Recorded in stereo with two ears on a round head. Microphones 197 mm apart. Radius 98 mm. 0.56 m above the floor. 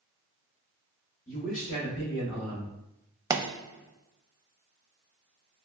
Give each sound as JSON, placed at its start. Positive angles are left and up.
{"t": 1.3, "sound": "a man speaking", "side_deg": 35, "distance_m": 0.9}
{"t": 3.3, "sound": "a pop", "side_deg": -15, "distance_m": 0.5}